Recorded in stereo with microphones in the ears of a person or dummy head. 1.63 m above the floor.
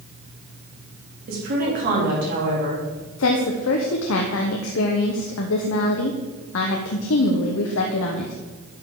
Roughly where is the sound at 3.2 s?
Left.